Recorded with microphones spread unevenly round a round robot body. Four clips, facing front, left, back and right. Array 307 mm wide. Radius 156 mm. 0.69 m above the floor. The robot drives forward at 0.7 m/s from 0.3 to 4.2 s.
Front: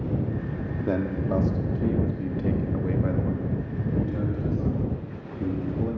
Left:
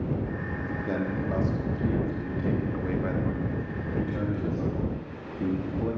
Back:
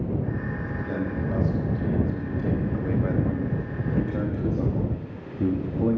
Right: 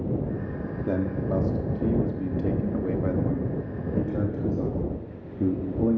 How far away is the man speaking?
About 2.0 m.